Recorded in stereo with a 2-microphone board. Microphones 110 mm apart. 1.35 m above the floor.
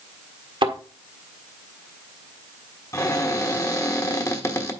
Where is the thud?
55° right (ahead or behind), 1.6 m.